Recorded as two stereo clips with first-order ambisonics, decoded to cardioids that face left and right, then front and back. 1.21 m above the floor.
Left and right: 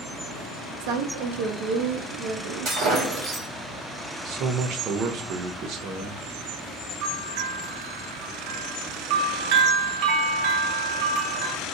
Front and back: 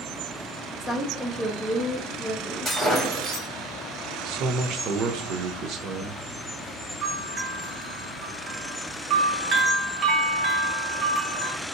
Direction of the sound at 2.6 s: 95° right.